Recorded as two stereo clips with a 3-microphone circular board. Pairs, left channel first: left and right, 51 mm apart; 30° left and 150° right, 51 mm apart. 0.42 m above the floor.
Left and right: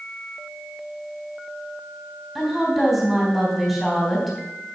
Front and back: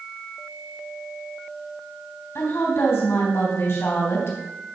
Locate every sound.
2.4 s a woman speaking: 5° left, 3.5 m